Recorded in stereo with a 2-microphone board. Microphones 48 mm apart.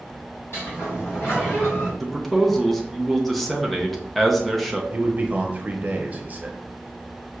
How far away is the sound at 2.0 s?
About 0.6 m.